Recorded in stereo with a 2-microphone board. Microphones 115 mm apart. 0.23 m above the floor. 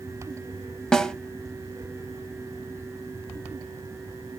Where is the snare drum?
5° left (ahead or behind), 0.6 m.